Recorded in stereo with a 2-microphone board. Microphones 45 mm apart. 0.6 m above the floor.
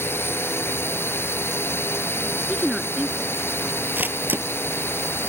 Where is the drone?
60° left (ahead or behind).